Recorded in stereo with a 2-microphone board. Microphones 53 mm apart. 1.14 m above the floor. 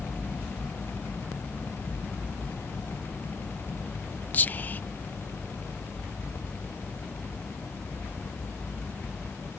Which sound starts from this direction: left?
Whispering, at 4.3 s.